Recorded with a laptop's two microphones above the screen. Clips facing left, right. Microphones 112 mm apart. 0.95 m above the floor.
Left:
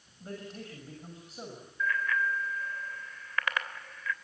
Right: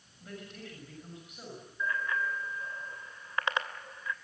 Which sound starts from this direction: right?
A bicycle bell, at 1.8 s.